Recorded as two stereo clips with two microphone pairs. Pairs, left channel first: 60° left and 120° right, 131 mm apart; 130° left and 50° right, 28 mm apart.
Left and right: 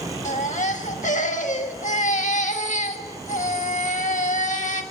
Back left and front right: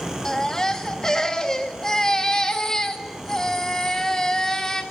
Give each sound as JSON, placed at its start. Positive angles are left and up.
{"t": 0.2, "sound": "a baby crying", "azimuth_deg": 60, "distance_m": 1.6}